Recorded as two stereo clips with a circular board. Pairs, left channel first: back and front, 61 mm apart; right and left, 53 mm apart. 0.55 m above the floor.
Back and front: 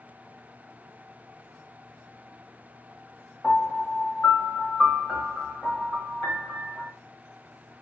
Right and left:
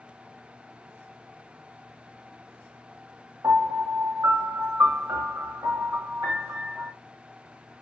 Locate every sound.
3.4 s a piano: 105° left, 1.0 m